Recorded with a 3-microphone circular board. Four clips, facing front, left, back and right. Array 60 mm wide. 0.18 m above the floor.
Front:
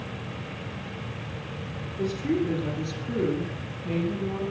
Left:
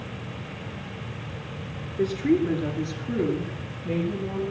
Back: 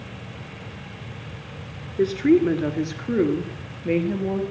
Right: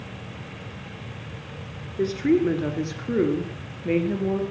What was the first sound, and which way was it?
A woman speaking, 170° right.